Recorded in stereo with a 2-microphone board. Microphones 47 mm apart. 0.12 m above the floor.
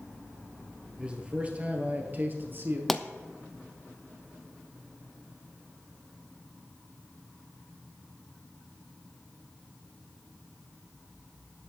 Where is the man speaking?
20° right (ahead or behind), 2 m; by 2.8 s 40° right (ahead or behind), 2.5 m.